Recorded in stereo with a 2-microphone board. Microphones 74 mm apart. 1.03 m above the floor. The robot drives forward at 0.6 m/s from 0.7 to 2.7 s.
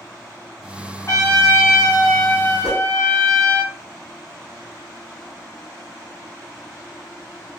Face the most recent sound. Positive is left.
turn(degrees=-15)  # may be behind; listen again after turning